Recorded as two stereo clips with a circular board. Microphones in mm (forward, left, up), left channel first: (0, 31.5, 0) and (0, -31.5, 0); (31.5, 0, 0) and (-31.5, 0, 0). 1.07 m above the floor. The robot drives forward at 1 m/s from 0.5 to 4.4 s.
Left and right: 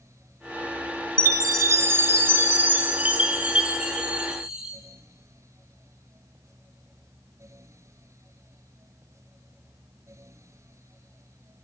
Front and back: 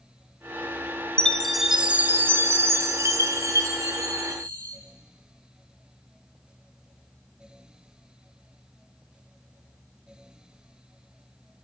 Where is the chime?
70° right, 1.1 m; by 4.8 s 165° right, 3 m.